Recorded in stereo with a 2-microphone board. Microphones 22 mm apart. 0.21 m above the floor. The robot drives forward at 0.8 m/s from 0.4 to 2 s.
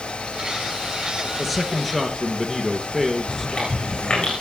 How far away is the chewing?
About 8 m.